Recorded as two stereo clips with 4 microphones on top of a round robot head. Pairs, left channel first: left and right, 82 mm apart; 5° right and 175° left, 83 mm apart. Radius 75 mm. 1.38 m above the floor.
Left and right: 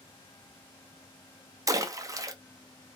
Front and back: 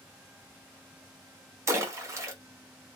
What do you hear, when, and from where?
1.7 s a splash: 135° right, 0.7 m